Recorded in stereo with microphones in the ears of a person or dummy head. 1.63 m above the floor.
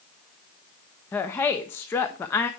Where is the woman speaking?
10° left (ahead or behind), 0.6 m.